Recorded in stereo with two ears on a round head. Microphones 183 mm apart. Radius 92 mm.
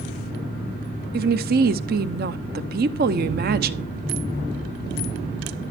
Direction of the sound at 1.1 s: 45° right (ahead or behind).